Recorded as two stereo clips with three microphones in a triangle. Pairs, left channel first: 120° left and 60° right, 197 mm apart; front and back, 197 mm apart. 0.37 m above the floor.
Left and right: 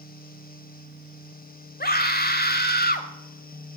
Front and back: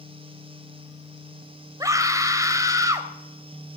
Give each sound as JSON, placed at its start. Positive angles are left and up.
{"t": 1.8, "sound": "a scream", "azimuth_deg": 110, "distance_m": 1.8}